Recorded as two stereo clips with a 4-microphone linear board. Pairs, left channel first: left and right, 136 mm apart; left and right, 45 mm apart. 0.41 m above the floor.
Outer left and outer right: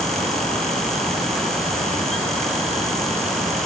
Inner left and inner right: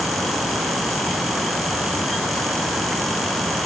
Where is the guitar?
No guitar in this recording.